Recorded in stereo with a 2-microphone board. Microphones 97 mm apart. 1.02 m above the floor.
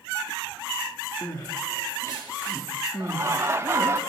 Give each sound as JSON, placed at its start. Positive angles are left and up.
{"t": 1.2, "sound": "crying", "side_deg": 35, "distance_m": 6.0}
{"t": 3.0, "sound": "laughter", "side_deg": -25, "distance_m": 1.4}